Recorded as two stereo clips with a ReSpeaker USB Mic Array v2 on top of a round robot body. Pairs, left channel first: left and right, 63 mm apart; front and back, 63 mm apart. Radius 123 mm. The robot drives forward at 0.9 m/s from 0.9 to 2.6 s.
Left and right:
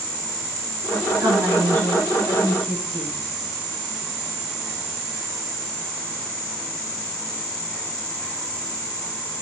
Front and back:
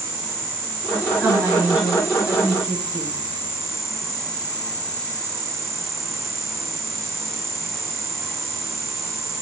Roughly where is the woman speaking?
Behind right.